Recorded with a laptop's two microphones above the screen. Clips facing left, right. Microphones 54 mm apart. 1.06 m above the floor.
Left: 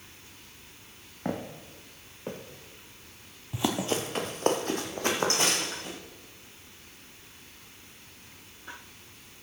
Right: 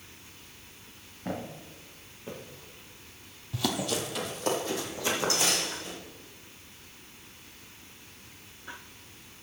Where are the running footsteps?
20° left (ahead or behind), 1.3 m; by 6.0 s 45° left (ahead or behind), 3 m.